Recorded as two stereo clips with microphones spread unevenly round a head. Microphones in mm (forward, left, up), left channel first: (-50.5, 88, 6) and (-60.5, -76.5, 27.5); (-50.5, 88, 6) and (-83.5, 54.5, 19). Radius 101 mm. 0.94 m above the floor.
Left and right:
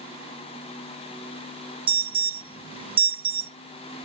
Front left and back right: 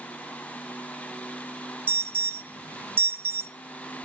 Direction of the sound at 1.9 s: 135° right.